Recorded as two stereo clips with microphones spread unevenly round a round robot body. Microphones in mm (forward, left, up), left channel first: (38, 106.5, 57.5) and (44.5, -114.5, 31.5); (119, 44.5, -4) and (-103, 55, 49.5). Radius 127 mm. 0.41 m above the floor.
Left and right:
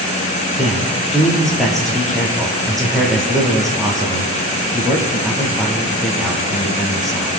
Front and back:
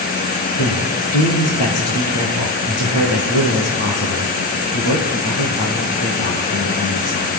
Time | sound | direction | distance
0.6 | a man speaking | 5° left | 8.5 m